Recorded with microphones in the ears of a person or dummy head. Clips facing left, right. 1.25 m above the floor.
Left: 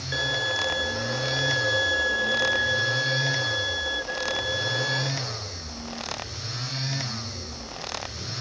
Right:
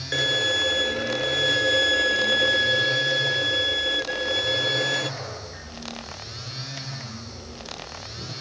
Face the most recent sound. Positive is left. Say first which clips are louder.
# right 4 dB
turn(degrees=-30)  # may be behind; listen again after turning